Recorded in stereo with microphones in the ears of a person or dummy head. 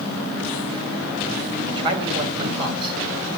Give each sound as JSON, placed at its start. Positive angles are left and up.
{"t": 1.7, "sound": "a man speaking", "side_deg": -25, "distance_m": 3.5}